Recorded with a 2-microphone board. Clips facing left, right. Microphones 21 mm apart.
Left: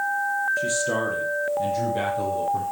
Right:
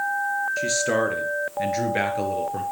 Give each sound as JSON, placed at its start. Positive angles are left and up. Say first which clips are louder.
{"t": 0.6, "sound": "a man speaking", "louder": "right 2 dB", "side_deg": -45, "distance_m": 2.5}